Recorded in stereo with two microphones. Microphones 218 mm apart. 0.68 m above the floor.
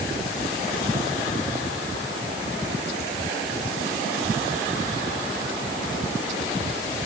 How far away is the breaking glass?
No breaking glass in this recording.